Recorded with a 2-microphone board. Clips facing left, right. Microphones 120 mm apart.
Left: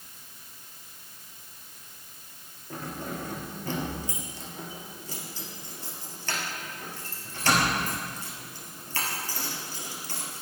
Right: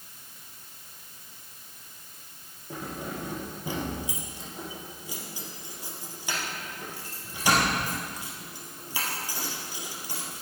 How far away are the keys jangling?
About 2 m.